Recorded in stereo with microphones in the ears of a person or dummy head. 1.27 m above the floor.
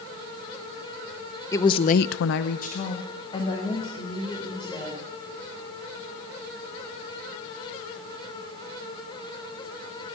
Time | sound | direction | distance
1.5 | a woman speaking | 15° left (ahead or behind) | 1.0 m